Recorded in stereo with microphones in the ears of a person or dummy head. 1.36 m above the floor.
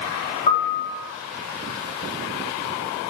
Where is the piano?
35° left (ahead or behind), 4 m.